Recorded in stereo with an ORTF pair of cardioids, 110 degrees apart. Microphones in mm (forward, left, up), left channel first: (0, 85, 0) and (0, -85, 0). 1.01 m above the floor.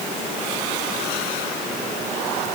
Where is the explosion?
No explosion in this recording.